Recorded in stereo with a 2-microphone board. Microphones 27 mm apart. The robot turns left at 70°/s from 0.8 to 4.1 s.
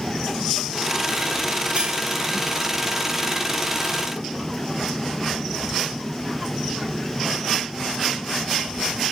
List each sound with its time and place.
1.8 s cutlery clinking: 50° right (ahead or behind), 1.9 m; by 2.0 s 65° right (ahead or behind), 1.9 m